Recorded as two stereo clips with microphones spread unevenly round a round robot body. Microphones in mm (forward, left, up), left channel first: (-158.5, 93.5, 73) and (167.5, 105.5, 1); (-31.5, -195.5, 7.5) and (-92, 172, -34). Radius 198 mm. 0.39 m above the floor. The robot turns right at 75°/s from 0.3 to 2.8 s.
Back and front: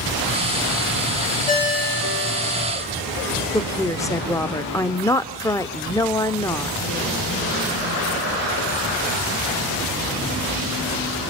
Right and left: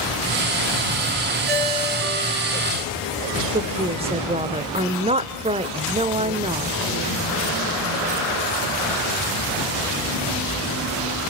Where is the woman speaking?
85° left, 0.9 m.